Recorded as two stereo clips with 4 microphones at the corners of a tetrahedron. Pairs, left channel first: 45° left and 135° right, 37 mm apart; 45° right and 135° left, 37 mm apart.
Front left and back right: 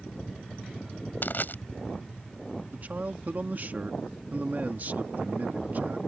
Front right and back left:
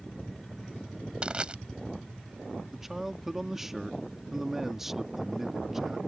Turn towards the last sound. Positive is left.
turn(degrees=-145)